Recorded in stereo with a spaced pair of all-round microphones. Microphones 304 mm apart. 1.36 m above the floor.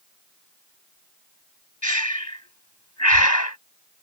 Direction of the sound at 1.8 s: 65° left (ahead or behind).